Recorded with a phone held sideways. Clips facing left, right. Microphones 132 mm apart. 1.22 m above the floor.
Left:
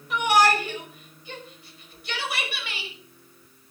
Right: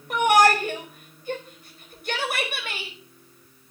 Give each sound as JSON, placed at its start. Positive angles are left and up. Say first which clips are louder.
{"t": 0.1, "sound": "a shout", "louder": "right 3 dB", "side_deg": -45, "distance_m": 5.0}